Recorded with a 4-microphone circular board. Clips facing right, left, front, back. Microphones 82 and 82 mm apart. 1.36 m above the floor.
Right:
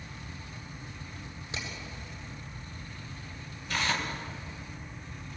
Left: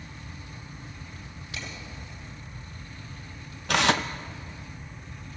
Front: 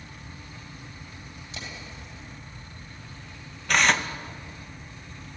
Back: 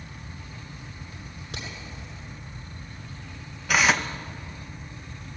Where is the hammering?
160° right, 8.5 m.